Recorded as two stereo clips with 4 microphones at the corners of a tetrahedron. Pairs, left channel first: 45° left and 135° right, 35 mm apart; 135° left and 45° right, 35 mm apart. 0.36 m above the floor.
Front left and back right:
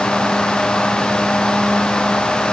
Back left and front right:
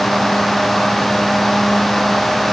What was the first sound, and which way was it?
Only background noise.